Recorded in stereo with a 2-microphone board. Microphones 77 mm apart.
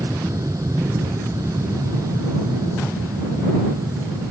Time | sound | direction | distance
0.0 | an aircraft | 50° right (ahead or behind) | ?